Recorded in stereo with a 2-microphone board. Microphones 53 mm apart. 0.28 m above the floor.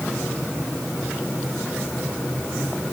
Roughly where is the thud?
I don't hear a thud.